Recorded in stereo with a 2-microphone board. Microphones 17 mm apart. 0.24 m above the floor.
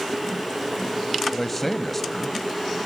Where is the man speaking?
10° left (ahead or behind), 1.3 m.